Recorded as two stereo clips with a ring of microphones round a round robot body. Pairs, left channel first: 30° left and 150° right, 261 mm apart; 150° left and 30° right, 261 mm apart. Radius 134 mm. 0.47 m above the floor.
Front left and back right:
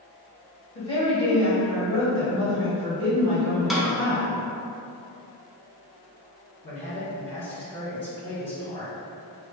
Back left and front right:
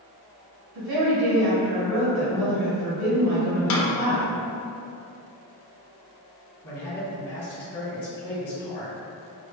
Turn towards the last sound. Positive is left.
turn(degrees=90)